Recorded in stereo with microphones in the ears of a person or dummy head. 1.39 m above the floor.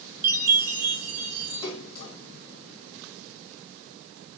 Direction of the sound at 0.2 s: 45° right (ahead or behind).